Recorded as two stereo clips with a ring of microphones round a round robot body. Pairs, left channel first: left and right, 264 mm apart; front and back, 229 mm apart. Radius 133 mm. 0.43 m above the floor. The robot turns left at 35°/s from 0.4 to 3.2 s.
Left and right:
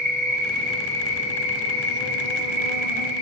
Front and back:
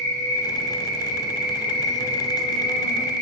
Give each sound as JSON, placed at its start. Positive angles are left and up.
{"t": 0.0, "sound": "an insect", "azimuth_deg": 150, "distance_m": 1.9}